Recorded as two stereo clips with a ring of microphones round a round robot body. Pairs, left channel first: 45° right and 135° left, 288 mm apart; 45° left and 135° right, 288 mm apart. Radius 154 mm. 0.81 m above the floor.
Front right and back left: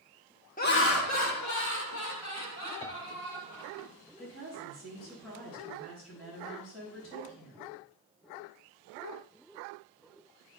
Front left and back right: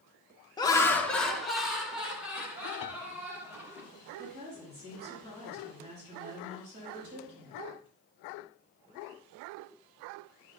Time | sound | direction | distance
0.6 | laughter | 20° right | 0.9 m
2.8 | a piano | 35° left | 0.6 m
4.2 | a woman speaking | 80° right | 4 m